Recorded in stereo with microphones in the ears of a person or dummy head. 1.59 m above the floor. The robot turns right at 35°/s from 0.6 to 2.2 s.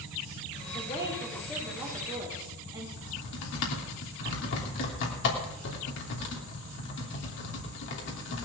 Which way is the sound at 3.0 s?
60° left (ahead or behind).